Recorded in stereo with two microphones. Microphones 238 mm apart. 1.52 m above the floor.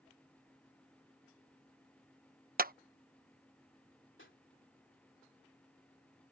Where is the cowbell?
I don't hear a cowbell.